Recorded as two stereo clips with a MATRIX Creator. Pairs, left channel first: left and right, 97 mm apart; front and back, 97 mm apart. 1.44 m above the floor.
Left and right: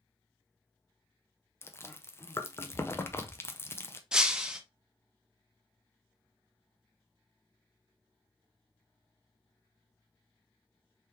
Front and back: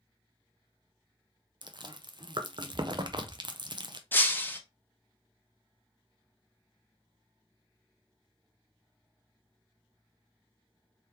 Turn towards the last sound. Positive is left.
turn(degrees=-20)